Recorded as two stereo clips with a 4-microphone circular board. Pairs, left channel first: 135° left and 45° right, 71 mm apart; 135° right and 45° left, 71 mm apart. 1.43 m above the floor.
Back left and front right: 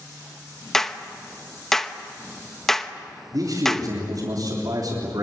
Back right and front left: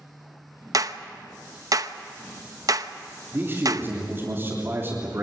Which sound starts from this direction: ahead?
A man speaking, at 3.3 s.